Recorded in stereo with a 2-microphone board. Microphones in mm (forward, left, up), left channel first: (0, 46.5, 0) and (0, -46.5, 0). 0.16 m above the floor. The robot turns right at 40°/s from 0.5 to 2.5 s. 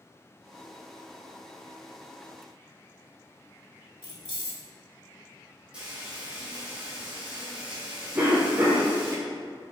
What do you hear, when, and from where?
4.0 s keys jangling: 55° left (ahead or behind), 1.4 m
5.7 s frying: 10° right (ahead or behind), 1.4 m
8.2 s a cough: 25° right (ahead or behind), 1.4 m